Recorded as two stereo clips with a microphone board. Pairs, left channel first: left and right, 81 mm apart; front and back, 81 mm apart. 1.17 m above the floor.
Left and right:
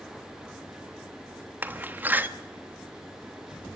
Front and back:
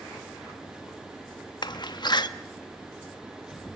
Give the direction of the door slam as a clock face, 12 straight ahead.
1 o'clock.